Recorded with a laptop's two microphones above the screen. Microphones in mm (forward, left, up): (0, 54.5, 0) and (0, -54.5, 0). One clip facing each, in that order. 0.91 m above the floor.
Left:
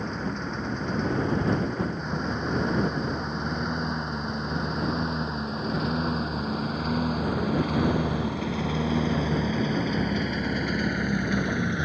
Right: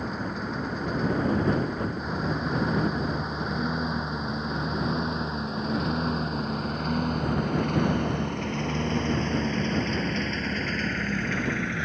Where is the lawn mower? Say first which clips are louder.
Even; 5° right (ahead or behind); by 11.8 s 20° left (ahead or behind).